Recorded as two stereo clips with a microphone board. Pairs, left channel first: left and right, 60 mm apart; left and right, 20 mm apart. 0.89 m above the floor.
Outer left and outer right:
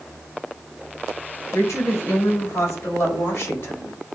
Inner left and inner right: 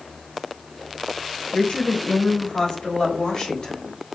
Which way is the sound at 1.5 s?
55° left (ahead or behind).